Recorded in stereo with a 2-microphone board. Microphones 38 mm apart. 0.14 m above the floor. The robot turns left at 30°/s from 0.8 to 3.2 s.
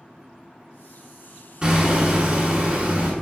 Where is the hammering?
30° right, 0.8 m; by 3.1 s 75° right, 0.8 m.